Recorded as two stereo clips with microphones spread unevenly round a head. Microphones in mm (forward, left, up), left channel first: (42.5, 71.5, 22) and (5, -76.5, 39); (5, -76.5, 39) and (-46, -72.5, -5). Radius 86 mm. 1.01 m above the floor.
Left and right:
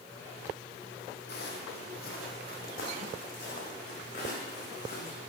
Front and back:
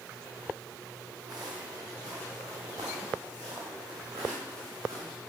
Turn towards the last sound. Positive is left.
turn(degrees=130)